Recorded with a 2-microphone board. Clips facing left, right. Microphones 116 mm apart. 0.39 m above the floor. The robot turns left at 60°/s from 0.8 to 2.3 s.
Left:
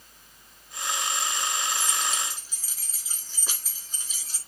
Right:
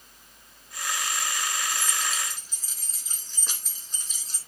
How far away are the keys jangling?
About 3.5 m.